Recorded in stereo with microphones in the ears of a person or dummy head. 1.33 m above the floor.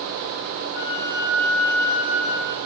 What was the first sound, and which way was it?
A flute, 70° left (ahead or behind).